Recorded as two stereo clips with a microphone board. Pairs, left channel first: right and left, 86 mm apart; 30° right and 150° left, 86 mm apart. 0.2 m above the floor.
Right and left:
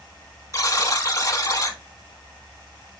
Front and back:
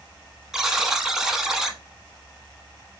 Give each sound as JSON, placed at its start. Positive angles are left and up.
{"t": 0.5, "sound": "a buzzer", "azimuth_deg": -125, "distance_m": 0.7}